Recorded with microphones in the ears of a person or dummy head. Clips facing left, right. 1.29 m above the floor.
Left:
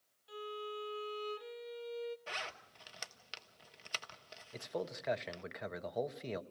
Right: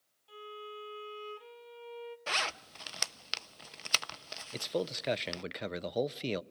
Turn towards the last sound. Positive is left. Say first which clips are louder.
# right 6 dB
turn(degrees=-40)  # may be behind; listen again after turning